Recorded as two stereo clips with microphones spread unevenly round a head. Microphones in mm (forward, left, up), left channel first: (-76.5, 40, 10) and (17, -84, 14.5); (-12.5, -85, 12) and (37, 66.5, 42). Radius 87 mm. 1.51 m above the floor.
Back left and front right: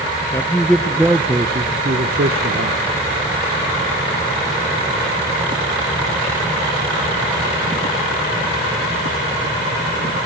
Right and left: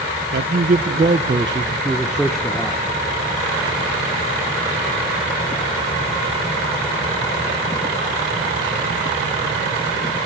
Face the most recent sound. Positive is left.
turn(degrees=-25)